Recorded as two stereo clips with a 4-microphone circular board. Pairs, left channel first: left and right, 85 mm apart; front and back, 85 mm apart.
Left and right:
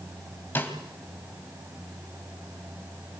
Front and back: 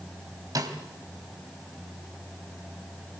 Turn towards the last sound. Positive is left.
turn(degrees=150)